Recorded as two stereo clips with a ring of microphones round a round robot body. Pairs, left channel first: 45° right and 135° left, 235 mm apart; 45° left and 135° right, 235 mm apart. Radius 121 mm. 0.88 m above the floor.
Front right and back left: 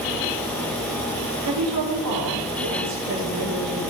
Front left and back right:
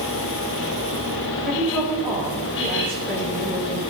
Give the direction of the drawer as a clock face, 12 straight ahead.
No drawer in this recording.